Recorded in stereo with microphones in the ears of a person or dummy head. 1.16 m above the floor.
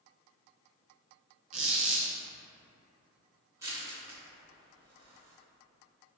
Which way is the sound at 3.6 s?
20° right (ahead or behind).